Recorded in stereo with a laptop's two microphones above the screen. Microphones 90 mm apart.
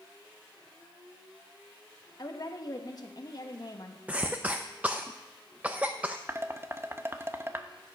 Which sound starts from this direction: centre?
A cough, at 4.1 s.